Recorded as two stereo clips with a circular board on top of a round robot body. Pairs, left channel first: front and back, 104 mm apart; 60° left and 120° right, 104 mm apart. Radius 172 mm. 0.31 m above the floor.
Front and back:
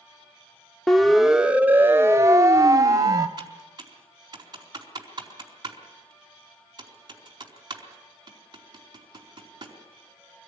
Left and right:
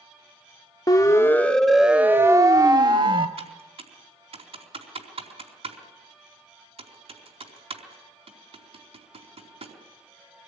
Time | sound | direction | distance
0.9 | a siren | 85° left | 2 m
3.4 | typing on a keyboard | 130° right | 4.5 m